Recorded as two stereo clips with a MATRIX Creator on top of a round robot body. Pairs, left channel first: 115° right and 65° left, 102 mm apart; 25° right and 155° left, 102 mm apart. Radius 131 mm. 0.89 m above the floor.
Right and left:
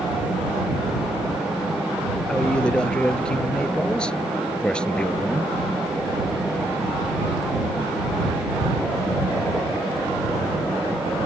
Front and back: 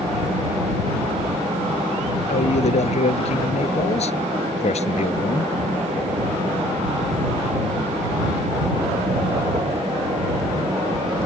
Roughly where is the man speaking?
Ahead right.